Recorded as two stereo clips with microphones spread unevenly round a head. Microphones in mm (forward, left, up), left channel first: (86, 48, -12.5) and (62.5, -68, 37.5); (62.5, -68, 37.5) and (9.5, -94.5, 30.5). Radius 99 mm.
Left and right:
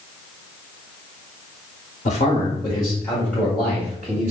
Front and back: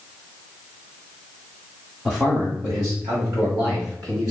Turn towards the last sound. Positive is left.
turn(degrees=170)